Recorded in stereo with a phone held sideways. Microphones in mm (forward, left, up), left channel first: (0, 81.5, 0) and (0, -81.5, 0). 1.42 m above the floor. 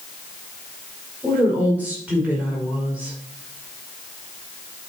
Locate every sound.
1.2 s a woman speaking: 10° right (ahead or behind), 5 m